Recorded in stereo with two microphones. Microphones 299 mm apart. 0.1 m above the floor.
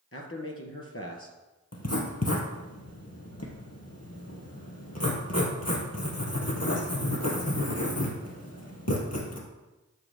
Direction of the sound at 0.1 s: 45° left (ahead or behind).